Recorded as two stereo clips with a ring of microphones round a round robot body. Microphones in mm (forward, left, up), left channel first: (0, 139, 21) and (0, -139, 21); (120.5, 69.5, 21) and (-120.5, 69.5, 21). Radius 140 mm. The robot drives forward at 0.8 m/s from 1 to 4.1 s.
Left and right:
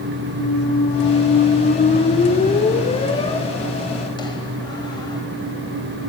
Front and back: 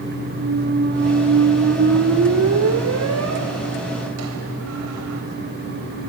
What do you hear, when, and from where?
0.4 s a squeak: 135° left, 1.2 m; by 5.2 s 165° left, 3.5 m